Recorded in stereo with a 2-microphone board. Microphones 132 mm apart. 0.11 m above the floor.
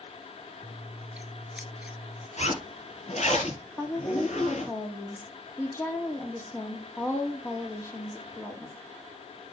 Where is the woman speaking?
20° left (ahead or behind), 4 m.